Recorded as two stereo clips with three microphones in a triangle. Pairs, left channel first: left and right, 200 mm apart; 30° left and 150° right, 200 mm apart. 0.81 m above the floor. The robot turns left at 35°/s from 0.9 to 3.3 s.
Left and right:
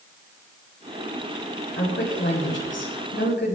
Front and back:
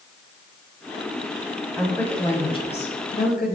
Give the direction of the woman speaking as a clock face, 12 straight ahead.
8 o'clock.